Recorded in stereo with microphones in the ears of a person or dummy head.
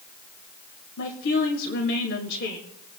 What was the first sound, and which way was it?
A woman speaking, 60° left (ahead or behind).